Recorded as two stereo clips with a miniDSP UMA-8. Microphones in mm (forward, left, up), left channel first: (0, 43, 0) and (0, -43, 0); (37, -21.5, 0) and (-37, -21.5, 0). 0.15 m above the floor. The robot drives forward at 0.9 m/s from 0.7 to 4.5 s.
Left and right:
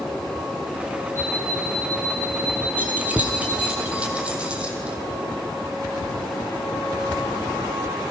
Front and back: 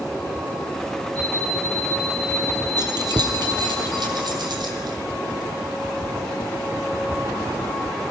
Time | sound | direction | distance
1.1 | an alarm clock | 150° left | 7.5 m
2.8 | keys jangling | 160° right | 2.5 m